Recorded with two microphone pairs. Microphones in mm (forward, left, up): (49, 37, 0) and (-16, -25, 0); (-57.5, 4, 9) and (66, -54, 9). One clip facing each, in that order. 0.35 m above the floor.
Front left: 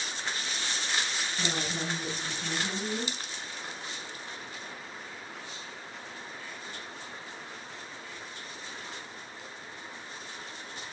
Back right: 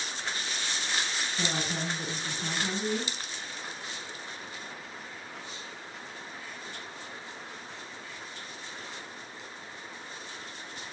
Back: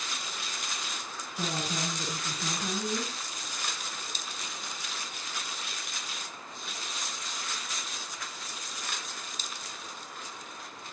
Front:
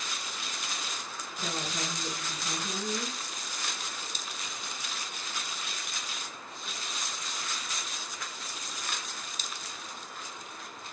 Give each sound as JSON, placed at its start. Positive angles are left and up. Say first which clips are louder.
{"t": 1.4, "sound": "a woman speaking", "louder": "back right 1 dB, back 2 dB", "azimuth_deg": 160, "distance_m": 9.5}